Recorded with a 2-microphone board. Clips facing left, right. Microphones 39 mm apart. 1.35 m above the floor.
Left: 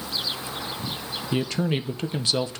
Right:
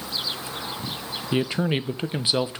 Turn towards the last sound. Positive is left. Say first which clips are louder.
# right 2 dB
turn(degrees=-20)  # may be behind; listen again after turning